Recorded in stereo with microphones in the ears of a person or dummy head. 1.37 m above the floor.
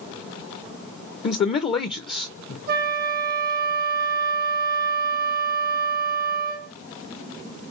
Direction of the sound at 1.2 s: 30° left (ahead or behind).